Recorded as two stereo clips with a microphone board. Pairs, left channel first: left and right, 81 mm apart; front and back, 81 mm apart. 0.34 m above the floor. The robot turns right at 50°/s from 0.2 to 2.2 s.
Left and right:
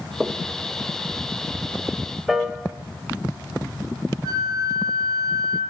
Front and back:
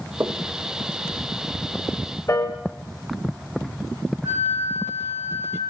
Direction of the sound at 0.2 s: Straight behind.